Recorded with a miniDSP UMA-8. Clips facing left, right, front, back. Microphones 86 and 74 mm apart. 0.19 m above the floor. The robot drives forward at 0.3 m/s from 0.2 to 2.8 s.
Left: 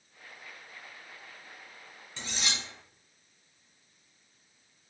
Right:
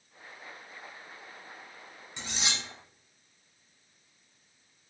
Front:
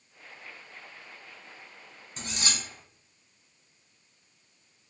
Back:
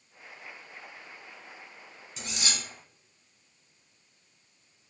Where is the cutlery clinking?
25° right, 1.0 m; by 2.6 s 30° right, 0.9 m.